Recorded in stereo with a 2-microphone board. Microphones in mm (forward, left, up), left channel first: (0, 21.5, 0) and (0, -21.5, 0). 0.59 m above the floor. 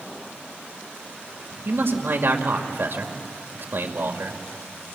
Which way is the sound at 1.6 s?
65° right (ahead or behind).